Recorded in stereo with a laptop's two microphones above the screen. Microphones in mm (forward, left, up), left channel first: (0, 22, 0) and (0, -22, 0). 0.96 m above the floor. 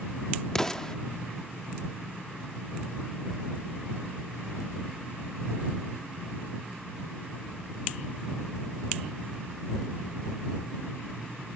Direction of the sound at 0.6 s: 10° left (ahead or behind).